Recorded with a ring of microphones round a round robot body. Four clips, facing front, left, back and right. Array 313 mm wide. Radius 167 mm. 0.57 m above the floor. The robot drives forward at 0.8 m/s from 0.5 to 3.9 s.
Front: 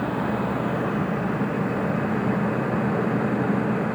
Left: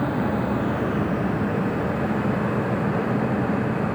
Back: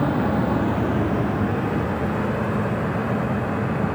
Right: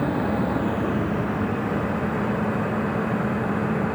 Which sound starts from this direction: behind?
An insect, at 0.0 s.